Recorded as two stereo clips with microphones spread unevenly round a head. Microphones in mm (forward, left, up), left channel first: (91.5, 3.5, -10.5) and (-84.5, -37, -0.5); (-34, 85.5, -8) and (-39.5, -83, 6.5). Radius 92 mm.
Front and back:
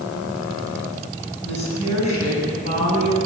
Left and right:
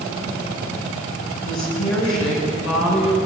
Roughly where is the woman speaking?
Left.